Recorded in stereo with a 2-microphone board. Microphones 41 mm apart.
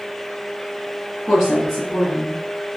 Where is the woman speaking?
Centre (ahead or behind), 2 m; by 2.4 s 15° left (ahead or behind), 2.5 m.